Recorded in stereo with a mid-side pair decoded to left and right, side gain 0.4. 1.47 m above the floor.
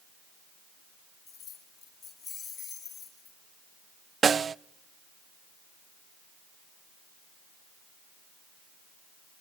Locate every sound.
1.3 s keys jangling: 50° left, 7 m; by 3.4 s 45° left, 9.5 m
4.2 s a snare drum: 45° right, 0.5 m